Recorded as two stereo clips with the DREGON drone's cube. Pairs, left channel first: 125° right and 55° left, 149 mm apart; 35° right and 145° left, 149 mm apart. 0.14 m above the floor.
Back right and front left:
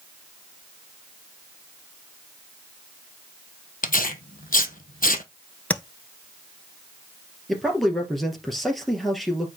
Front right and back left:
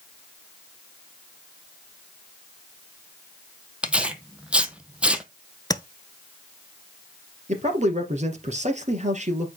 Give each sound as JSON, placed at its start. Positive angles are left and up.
{"t": 3.8, "sound": "tearing paper", "azimuth_deg": -130, "distance_m": 1.0}
{"t": 5.7, "sound": "tapping", "azimuth_deg": -55, "distance_m": 0.7}
{"t": 7.5, "sound": "a man speaking", "azimuth_deg": 145, "distance_m": 2.5}